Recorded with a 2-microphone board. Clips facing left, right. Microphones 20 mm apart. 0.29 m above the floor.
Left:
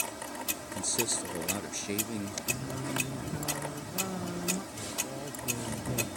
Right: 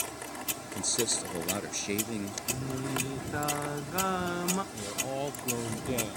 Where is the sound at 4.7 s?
70° right (ahead or behind).